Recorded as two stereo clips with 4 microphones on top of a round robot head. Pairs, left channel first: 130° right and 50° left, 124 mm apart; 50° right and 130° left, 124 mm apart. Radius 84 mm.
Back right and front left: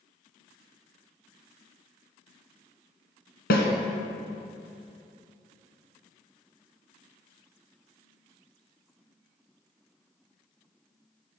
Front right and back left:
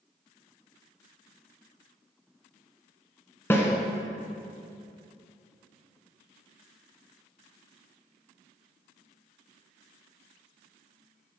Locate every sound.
3.5 s a snare drum: 125° right, 1.3 m